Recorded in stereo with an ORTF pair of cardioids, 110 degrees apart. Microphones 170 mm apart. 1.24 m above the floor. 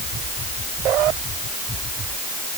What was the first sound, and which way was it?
Only background noise.